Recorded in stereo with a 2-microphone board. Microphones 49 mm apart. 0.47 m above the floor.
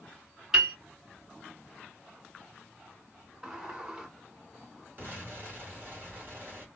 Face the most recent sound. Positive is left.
turn(degrees=-40)  # may be behind; listen again after turning